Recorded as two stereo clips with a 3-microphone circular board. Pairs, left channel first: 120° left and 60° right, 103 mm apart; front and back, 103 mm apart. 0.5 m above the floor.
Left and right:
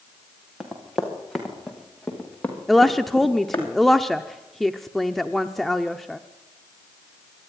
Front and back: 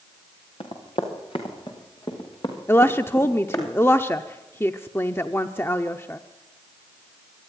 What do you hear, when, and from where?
0.6 s running footsteps: 25° left, 4.5 m; by 3.7 s 45° left, 5 m
2.7 s a woman speaking: 35° left, 0.7 m